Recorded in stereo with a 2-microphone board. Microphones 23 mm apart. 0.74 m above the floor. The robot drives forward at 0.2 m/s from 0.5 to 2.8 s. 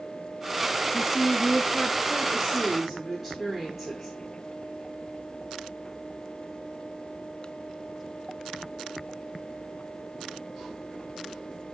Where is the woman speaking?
10° right (ahead or behind), 0.7 m; by 4.2 s 5° right (ahead or behind), 0.9 m.